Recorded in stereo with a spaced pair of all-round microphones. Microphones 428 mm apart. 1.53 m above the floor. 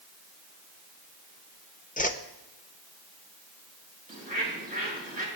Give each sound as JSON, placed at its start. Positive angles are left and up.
{"t": 2.0, "sound": "a whoosh", "side_deg": 20, "distance_m": 0.8}
{"t": 4.1, "sound": "a bird", "side_deg": -20, "distance_m": 4.0}